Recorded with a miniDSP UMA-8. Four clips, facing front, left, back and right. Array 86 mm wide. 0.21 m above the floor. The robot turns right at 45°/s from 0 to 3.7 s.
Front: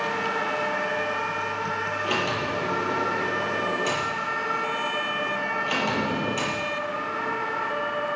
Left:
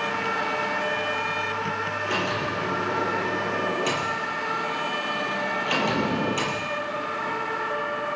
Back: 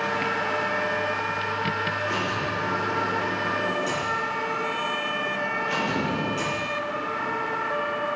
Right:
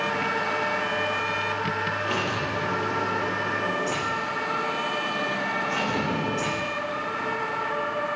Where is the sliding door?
10° right, 6 m; by 6.7 s 65° left, 6 m.